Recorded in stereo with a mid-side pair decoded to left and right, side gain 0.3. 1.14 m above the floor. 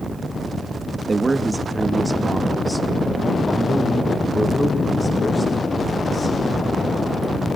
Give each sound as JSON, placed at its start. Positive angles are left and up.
{"t": 1.1, "sound": "a man speaking", "azimuth_deg": -40, "distance_m": 1.4}